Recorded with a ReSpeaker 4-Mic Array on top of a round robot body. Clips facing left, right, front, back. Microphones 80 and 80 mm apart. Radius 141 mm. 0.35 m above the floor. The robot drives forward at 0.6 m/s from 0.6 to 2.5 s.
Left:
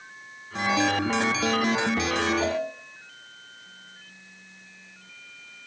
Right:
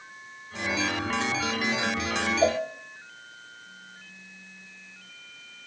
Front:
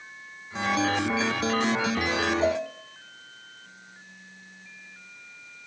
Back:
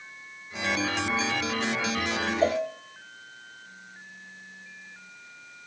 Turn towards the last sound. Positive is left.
turn(degrees=-150)